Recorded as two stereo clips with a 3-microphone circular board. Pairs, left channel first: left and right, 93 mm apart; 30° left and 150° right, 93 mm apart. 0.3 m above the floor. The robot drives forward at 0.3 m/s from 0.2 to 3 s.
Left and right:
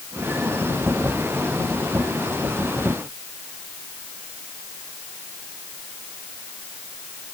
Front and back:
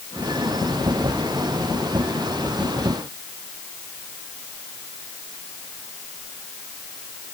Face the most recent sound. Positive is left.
No sound to turn to.